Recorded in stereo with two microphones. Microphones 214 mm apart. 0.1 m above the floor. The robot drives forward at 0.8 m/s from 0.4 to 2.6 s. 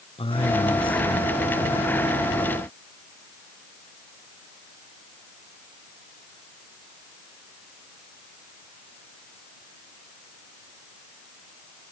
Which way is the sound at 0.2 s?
25° left (ahead or behind).